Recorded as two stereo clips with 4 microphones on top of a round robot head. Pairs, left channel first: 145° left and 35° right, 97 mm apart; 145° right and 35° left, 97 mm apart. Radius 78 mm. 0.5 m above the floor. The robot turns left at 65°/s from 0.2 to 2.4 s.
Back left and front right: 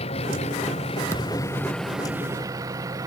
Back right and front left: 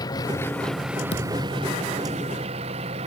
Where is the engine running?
165° left; by 3.1 s 20° left.